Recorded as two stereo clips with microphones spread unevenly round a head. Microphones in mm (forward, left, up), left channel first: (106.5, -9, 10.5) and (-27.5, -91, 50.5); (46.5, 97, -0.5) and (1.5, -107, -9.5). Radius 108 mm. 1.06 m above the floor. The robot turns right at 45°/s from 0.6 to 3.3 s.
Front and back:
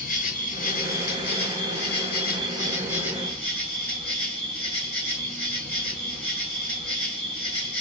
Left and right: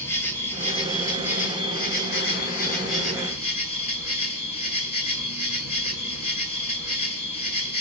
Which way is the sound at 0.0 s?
5° left.